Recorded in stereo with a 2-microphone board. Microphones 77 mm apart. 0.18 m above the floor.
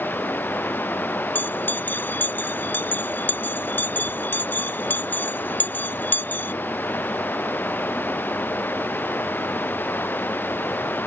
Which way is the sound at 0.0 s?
25° left (ahead or behind).